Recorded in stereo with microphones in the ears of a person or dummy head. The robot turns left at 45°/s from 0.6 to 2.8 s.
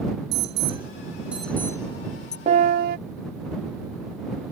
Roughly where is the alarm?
Right.